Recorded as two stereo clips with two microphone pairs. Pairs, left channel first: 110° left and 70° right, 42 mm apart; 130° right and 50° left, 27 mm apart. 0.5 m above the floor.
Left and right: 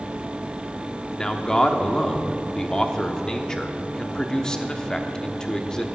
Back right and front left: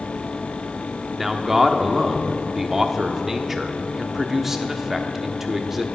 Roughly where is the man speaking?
Left.